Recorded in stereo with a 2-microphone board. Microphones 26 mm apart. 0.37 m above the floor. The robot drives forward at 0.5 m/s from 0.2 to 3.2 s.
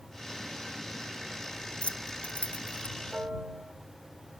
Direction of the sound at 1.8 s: 55° left (ahead or behind).